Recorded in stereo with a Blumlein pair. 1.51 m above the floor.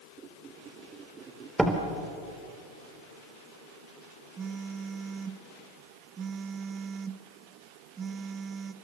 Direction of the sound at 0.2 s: 20° right.